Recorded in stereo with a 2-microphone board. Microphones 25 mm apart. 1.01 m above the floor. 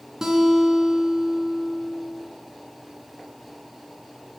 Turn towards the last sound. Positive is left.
turn(degrees=-25)  # may be behind; listen again after turning